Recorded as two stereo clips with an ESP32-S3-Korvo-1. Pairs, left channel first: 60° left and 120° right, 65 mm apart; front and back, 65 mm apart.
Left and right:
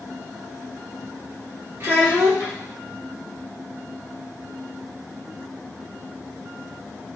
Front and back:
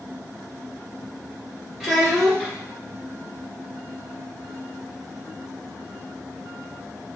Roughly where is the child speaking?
Right.